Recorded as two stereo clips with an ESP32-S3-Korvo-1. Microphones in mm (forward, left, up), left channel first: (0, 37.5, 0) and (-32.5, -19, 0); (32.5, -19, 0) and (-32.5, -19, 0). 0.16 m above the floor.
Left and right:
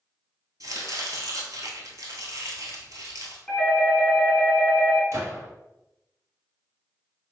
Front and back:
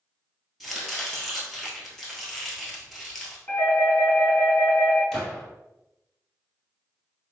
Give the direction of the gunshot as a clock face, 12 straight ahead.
3 o'clock.